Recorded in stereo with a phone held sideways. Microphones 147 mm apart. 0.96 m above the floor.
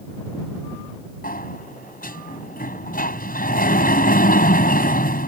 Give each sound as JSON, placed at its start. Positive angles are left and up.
{"t": 1.2, "sound": "a sliding door", "side_deg": 80}